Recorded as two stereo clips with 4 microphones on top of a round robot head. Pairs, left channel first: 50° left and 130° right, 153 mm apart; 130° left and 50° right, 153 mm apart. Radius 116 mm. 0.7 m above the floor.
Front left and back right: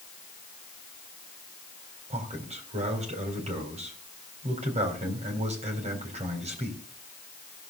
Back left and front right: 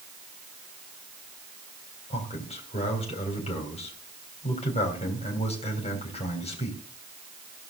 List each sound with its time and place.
2.1 s a man speaking: straight behind, 4 m